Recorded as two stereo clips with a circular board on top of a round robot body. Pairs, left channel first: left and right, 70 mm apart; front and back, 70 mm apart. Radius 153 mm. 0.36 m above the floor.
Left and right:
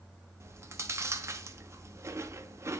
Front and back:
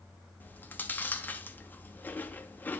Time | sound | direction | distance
0.4 | chewing | 55° right | 1.0 m